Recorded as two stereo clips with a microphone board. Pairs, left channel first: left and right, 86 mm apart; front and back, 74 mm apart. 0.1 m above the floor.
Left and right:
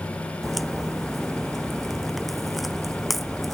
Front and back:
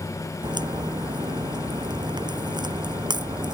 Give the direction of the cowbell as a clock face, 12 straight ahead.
No cowbell in this recording.